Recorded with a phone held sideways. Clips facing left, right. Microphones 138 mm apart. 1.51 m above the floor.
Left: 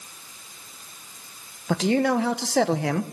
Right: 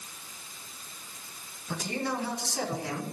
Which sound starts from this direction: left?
A man speaking, at 1.7 s.